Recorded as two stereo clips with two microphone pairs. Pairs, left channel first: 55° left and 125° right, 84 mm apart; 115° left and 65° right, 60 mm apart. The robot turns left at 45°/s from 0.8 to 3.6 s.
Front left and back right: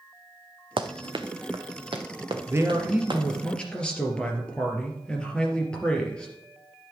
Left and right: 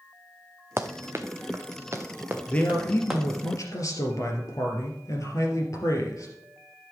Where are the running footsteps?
115° right, 0.8 m; by 3.2 s 155° right, 2.5 m.